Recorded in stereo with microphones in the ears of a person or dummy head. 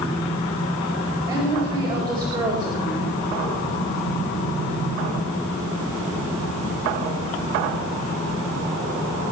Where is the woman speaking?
15° right (ahead or behind), 4.5 m.